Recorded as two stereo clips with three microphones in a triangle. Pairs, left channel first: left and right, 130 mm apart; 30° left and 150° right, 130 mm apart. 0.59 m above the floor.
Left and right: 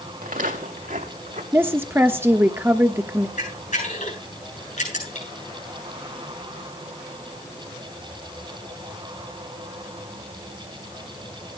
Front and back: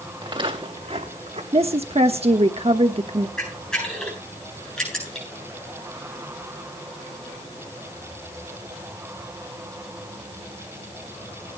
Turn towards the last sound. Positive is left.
turn(degrees=115)